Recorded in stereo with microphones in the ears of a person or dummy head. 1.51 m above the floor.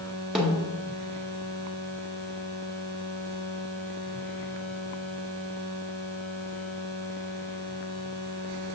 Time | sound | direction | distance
0.3 | a snare drum | centre (ahead or behind) | 1.5 m